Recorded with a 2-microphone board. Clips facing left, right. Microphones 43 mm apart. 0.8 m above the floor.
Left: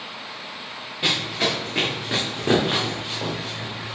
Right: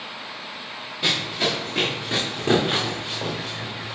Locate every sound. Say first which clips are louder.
1.0 s running footsteps: left 1 dB; 25° left (ahead or behind), 3.5 m; by 4.0 s centre (ahead or behind), 3 m